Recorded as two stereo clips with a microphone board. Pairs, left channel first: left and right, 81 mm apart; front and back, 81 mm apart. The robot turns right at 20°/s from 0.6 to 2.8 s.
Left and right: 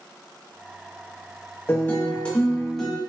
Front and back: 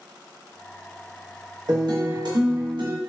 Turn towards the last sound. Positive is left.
turn(degrees=175)